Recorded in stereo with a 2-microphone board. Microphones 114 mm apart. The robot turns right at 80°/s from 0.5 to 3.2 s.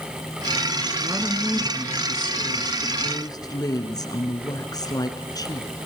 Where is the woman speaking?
45° right, 2.5 m; by 5.7 s 130° left, 2.5 m.